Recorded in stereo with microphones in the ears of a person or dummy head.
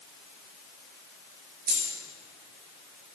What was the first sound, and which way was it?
A dropped coin, 45° right (ahead or behind).